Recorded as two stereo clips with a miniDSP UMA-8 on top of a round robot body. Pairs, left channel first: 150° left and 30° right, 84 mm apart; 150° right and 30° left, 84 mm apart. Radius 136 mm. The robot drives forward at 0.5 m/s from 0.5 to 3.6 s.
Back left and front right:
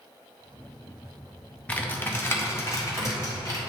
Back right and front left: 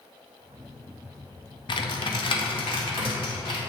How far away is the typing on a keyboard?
About 0.8 m.